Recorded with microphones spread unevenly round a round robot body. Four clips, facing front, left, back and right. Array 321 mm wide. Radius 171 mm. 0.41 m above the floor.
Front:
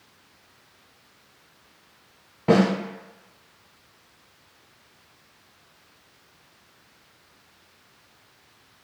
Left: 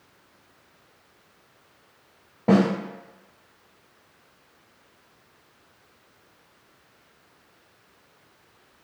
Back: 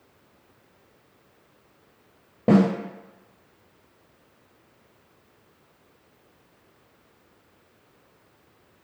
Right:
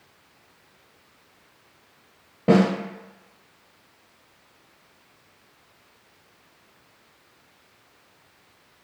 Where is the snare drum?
170° right, 1.3 m.